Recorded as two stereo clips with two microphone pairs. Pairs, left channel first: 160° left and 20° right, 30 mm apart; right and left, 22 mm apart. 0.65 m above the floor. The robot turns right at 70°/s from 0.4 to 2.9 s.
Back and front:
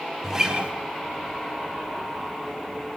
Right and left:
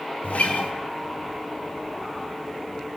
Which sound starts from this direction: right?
A guitar, at 0.2 s.